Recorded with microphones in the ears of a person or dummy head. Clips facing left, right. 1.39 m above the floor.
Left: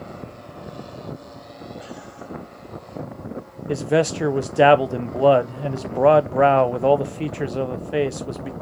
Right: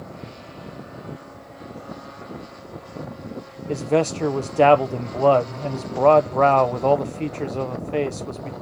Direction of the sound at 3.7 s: 10° left (ahead or behind).